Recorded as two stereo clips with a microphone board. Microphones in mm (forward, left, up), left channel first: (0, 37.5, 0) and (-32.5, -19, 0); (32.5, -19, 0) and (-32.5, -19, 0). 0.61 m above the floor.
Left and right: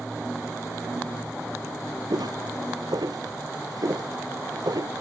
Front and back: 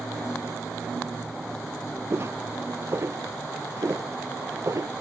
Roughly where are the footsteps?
Behind right.